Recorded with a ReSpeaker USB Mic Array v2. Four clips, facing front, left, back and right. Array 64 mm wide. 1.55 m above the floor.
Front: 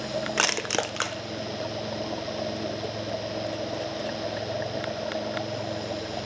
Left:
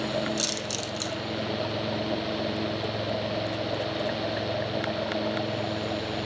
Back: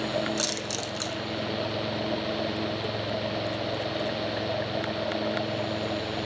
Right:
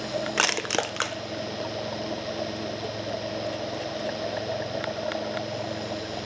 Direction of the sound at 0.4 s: 50° right.